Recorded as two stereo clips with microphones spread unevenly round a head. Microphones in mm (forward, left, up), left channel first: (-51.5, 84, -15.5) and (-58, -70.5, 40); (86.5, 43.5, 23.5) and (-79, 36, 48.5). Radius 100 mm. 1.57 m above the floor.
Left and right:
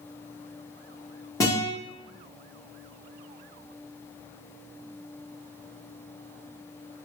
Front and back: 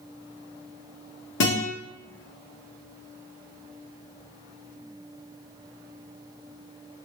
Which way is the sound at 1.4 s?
Straight ahead.